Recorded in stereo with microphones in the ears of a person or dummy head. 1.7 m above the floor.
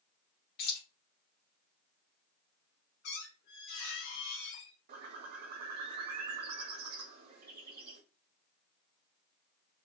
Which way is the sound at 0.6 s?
60° left (ahead or behind).